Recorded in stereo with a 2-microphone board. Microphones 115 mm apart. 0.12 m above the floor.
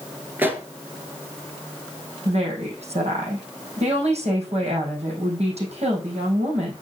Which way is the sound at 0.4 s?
15° right (ahead or behind).